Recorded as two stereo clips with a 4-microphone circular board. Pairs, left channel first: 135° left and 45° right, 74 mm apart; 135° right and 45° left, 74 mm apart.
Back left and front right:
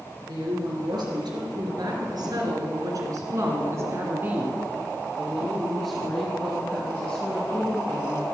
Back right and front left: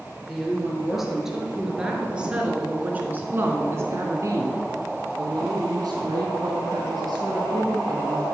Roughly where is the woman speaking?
Ahead right.